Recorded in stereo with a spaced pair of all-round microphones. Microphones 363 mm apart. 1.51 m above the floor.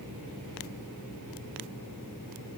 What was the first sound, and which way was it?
Only background noise.